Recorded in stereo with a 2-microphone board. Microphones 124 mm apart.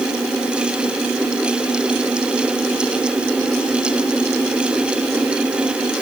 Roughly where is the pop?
No pop in this recording.